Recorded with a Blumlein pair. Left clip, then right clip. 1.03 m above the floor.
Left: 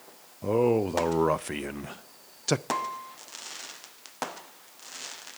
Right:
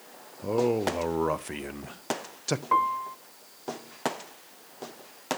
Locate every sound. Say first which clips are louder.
0.4 s a man speaking: left 2 dB; 10° left, 0.5 m
2.7 s a piano: right 7 dB; 65° right, 0.7 m